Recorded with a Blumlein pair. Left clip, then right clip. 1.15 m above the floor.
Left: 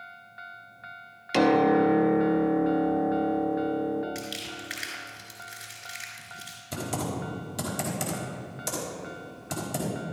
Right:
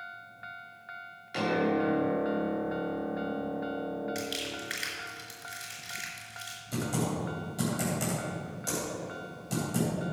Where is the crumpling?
Straight ahead, 4 m.